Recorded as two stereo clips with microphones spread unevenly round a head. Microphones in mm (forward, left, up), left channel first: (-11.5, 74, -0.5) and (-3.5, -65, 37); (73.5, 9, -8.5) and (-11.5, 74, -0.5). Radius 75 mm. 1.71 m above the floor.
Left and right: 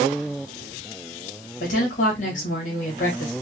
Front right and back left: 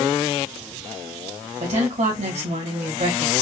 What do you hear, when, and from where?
1.6 s a woman speaking: 130° left, 2.5 m